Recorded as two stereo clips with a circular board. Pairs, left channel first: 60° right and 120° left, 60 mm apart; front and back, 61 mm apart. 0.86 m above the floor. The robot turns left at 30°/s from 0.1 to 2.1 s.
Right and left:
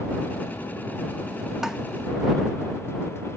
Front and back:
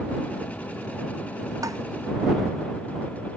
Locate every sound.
1.6 s tapping: 160° right; by 1.8 s 165° right